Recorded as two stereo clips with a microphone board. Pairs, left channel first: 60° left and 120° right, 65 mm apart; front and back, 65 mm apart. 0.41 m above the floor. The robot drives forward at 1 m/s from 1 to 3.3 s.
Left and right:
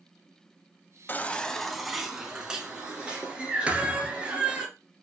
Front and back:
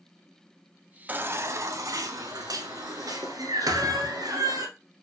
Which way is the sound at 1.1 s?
120° left.